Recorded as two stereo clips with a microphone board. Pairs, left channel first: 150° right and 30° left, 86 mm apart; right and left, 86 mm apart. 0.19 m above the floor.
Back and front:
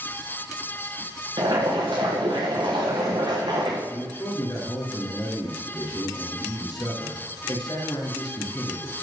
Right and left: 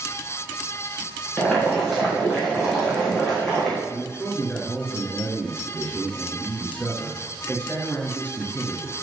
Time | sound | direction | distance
1.4 | boiling | 5° right | 3.5 m
3.9 | a man speaking | 160° right | 3 m